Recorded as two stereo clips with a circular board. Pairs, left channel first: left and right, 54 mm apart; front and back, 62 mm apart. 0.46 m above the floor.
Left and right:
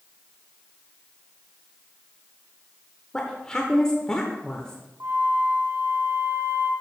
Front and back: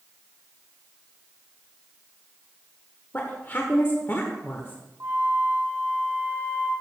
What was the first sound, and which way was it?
A woman speaking, 25° left.